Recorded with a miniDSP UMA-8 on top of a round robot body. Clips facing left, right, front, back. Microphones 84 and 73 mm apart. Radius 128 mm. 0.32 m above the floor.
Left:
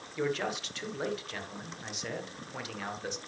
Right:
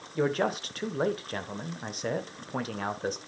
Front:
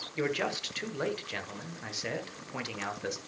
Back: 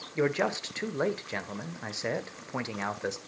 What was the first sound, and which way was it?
A man speaking, 125° right.